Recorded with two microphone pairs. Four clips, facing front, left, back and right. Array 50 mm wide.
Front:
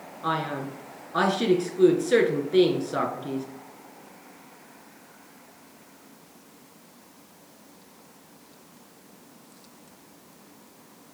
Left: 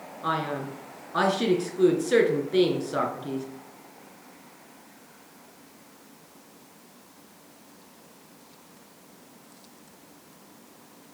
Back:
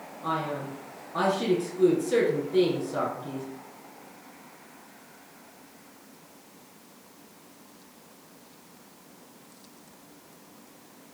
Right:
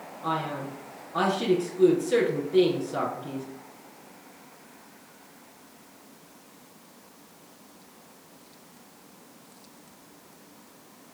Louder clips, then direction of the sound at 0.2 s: Left 2 dB, front 2 dB; 35° left.